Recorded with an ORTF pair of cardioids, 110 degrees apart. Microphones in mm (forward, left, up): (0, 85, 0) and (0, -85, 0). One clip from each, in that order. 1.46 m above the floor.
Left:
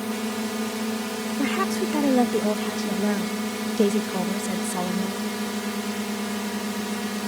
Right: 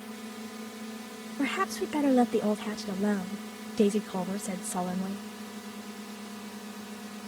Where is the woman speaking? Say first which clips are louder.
Left 3 dB; 10° left.